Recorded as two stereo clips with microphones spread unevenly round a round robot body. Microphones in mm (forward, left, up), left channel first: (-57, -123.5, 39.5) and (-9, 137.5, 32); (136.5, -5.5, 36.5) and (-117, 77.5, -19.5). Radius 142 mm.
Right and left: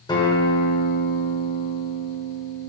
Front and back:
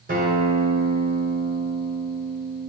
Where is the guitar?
170° right, 1.8 m.